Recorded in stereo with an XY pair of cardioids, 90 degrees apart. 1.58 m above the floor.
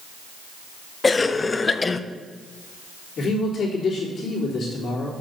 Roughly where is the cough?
Ahead left.